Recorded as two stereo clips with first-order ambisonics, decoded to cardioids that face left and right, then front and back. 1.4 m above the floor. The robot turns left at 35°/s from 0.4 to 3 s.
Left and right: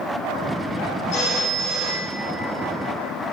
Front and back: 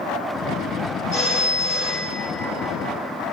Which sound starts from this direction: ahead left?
A phone ringing, at 1.1 s.